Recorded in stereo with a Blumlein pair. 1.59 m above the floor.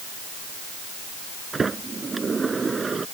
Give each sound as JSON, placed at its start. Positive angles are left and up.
{"t": 1.5, "sound": "a sliding door", "azimuth_deg": -15}